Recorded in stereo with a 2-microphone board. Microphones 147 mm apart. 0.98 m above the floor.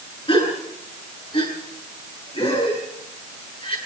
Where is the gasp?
35° left (ahead or behind), 8.5 m.